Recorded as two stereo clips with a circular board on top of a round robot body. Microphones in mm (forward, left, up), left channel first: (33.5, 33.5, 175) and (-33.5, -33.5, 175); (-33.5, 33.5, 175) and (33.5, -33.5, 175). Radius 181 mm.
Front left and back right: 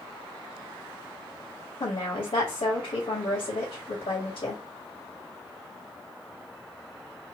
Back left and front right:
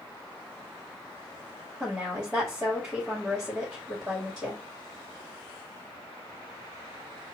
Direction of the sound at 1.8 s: 25° left.